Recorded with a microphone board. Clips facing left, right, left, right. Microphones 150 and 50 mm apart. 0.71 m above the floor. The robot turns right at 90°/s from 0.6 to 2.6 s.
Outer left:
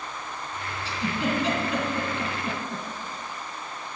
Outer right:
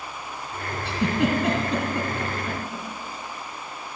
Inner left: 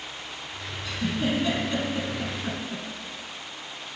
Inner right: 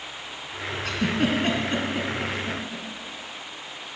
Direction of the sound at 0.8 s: 65° right (ahead or behind).